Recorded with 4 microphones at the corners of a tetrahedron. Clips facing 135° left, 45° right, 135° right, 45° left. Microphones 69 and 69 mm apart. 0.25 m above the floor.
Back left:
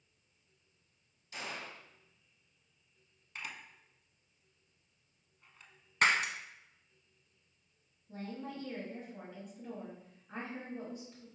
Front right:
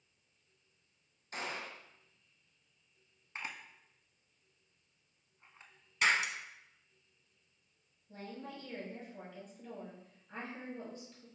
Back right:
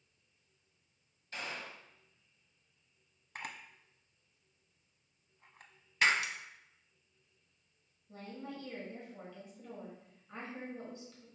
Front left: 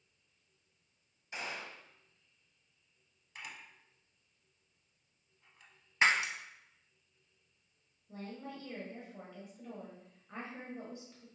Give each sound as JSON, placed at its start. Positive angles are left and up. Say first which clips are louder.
{"t": 1.3, "sound": "a gunshot", "louder": "front right 2 dB, front left 1 dB", "azimuth_deg": -25, "distance_m": 0.7}
{"t": 3.4, "sound": "a camera shutter", "louder": "front right 1 dB, back right 4 dB", "azimuth_deg": -100, "distance_m": 0.6}
{"t": 6.0, "sound": "breaking glass", "louder": "back left 2 dB, front left 1 dB", "azimuth_deg": 110, "distance_m": 0.6}
{"t": 8.1, "sound": "a woman speaking", "louder": "back left 3 dB, even", "azimuth_deg": 85, "distance_m": 1.5}